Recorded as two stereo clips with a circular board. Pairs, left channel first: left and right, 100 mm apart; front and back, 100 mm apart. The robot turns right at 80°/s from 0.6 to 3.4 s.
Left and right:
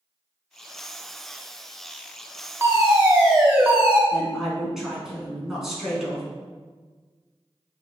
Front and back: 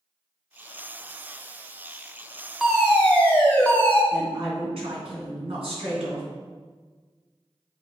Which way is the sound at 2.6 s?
95° right.